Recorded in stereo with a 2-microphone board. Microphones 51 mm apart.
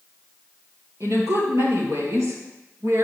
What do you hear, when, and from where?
1.0 s a woman speaking: 70° right (ahead or behind), 3 m; by 3.0 s 60° right (ahead or behind), 2 m